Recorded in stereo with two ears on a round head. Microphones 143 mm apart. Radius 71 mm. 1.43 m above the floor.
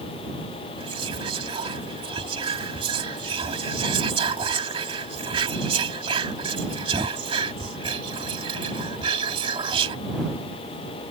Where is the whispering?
35° right (ahead or behind).